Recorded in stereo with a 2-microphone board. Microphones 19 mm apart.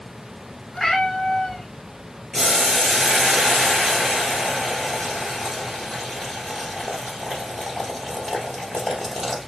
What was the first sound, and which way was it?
A cat meowing, 20° left (ahead or behind).